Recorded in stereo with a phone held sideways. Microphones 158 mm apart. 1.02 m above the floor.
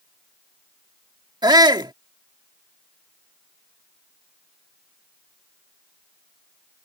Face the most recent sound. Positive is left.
turn(degrees=-25)  # may be behind; listen again after turning